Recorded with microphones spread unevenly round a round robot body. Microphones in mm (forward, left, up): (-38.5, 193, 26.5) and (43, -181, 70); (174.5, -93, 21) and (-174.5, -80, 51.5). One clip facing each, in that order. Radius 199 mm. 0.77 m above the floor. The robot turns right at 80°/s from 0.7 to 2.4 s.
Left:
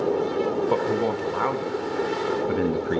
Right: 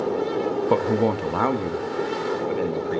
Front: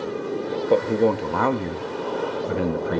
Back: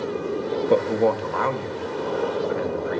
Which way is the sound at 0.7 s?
95° right.